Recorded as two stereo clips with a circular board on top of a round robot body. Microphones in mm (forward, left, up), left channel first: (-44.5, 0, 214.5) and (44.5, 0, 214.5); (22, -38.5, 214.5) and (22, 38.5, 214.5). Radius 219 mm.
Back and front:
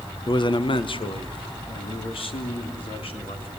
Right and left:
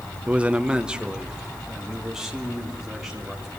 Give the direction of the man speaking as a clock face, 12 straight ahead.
7 o'clock.